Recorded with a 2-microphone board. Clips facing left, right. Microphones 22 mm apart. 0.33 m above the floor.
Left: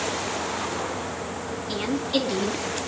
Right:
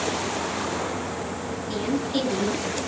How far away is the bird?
No bird in this recording.